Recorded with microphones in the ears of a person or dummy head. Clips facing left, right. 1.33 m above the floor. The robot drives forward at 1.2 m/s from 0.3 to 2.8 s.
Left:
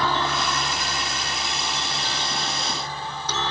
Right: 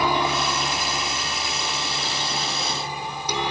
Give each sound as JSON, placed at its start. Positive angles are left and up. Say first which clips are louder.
{"t": 0.0, "sound": "a helicopter", "louder": "right 2 dB", "side_deg": -15}